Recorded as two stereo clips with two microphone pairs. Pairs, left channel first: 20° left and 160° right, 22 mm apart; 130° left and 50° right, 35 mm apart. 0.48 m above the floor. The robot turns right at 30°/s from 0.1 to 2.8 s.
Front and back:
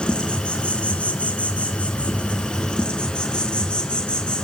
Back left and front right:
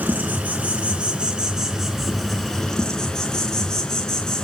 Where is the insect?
25° right, 3.5 m; by 4.5 s 55° left, 3.5 m.